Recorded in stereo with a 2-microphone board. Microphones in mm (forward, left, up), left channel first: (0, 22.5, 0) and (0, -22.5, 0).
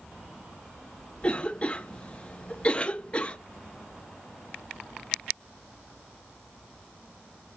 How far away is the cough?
About 0.9 m.